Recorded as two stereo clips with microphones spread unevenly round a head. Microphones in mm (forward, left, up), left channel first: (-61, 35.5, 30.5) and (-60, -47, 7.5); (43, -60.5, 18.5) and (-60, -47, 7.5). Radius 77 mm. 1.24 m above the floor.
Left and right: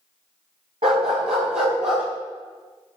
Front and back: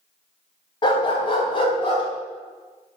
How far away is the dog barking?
About 3.5 m.